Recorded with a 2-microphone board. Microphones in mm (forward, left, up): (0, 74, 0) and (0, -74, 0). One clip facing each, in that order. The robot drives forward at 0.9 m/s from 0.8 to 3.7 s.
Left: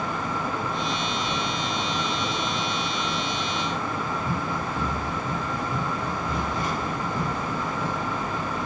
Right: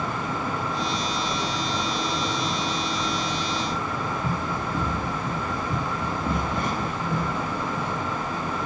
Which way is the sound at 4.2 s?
50° right (ahead or behind).